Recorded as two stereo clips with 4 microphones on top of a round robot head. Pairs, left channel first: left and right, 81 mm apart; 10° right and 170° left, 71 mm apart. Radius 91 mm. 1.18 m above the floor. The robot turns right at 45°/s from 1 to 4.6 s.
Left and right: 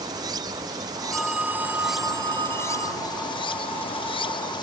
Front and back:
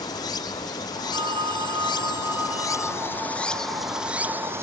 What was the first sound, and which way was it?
Running water, 45° right.